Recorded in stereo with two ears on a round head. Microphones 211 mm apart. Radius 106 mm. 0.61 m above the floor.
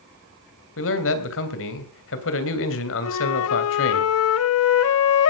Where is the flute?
65° left (ahead or behind), 0.8 m.